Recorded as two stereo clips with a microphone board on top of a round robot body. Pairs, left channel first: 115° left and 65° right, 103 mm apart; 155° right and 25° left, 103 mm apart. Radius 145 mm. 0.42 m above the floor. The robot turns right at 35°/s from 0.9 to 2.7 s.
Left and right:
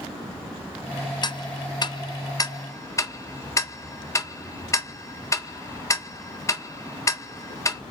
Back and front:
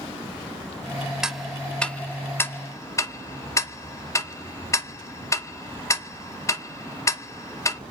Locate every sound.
1.2 s ticking: 105° left, 0.7 m; by 7.8 s 155° left, 0.7 m